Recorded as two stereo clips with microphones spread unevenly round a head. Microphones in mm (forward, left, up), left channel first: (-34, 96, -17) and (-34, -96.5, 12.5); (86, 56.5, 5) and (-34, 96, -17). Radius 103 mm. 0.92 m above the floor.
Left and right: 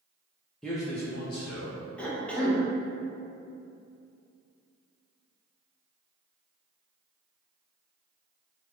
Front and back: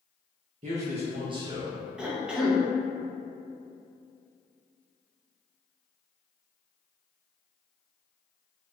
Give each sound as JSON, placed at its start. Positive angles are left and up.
{"t": 0.6, "sound": "a man speaking", "azimuth_deg": 175, "distance_m": 0.5}
{"t": 2.0, "sound": "a cough", "azimuth_deg": 130, "distance_m": 0.5}